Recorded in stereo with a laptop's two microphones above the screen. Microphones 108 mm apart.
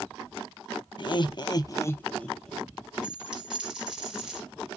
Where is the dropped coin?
5° right (ahead or behind), 4 m.